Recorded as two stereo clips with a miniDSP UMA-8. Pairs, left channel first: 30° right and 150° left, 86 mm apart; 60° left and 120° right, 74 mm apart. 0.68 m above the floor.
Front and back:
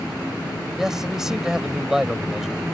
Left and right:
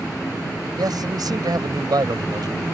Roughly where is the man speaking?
Behind right.